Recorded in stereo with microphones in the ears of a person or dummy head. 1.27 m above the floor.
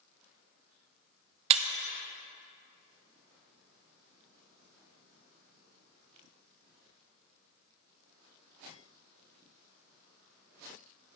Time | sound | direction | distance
1.5 | breaking glass | 40° right (ahead or behind) | 0.6 m